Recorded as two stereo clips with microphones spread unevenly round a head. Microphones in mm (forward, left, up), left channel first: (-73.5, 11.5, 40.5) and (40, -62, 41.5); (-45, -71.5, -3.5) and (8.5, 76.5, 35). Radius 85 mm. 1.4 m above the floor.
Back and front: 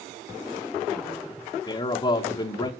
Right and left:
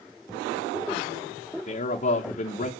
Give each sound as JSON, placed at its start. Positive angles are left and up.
{"t": 1.7, "sound": "a man speaking", "azimuth_deg": -155, "distance_m": 1.0}